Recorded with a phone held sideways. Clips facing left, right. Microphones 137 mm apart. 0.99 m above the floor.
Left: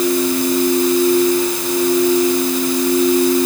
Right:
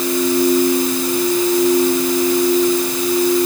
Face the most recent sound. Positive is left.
No sound to turn to.